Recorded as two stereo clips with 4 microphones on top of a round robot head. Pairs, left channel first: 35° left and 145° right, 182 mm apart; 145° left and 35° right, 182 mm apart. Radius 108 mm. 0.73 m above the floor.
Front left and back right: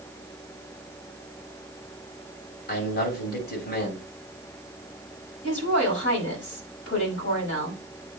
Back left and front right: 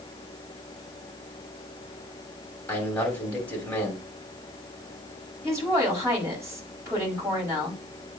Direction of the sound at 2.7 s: 60° left.